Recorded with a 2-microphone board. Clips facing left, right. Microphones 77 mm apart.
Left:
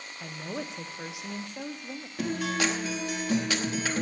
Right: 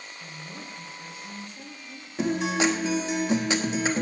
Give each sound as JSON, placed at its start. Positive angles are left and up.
{"t": 0.2, "sound": "a woman speaking", "side_deg": 75, "distance_m": 1.2}
{"t": 2.2, "sound": "a guitar", "side_deg": -20, "distance_m": 1.2}